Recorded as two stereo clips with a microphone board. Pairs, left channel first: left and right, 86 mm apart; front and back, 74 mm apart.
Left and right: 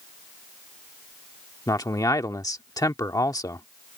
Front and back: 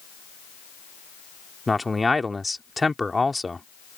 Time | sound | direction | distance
1.7 | a man speaking | 90° left | ?